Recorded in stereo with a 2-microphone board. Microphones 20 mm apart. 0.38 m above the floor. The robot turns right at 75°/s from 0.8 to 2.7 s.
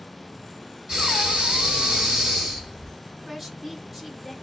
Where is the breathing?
140° right, 2.5 m; by 2.9 s straight ahead, 2.5 m.